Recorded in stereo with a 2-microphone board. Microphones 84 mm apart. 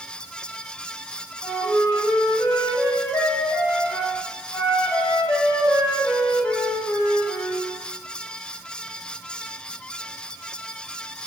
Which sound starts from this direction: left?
A flute, at 1.4 s.